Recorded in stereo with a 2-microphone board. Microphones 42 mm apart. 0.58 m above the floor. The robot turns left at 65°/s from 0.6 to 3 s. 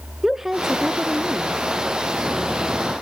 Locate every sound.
0.2 s a woman speaking: 10° right (ahead or behind), 0.6 m; by 1.6 s 20° right (ahead or behind), 0.6 m